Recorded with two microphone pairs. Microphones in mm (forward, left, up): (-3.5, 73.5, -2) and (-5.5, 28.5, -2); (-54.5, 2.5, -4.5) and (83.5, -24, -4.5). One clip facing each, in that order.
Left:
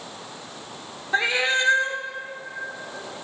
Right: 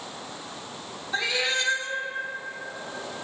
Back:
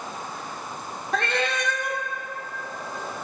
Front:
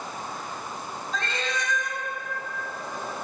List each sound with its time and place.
1.1 s a cat meowing: 145° left, 0.6 m